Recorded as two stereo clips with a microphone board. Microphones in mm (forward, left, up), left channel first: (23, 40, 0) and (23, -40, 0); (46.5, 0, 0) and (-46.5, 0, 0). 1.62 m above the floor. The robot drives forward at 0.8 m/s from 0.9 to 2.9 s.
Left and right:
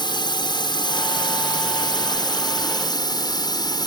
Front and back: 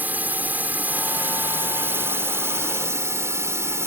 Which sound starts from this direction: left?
A drone, at 0.0 s.